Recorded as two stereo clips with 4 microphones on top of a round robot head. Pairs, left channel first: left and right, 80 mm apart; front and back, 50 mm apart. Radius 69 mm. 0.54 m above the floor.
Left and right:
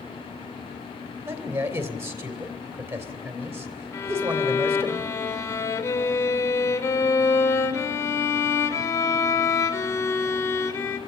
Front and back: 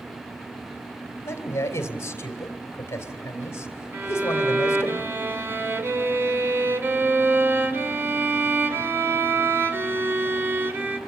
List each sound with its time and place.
1.2 s a man speaking: 35° right, 2.5 m
3.9 s a violin: 140° left, 2.5 m